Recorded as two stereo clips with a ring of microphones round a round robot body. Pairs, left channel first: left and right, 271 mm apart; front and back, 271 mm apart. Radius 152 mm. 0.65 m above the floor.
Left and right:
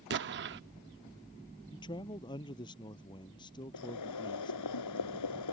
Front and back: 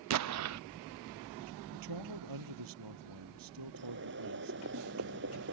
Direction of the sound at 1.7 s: 165° left.